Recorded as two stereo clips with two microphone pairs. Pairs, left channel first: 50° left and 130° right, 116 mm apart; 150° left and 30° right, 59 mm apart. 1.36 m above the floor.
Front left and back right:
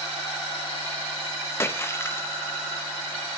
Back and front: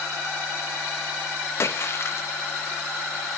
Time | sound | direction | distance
1.6 | a splash | 115° left | 0.9 m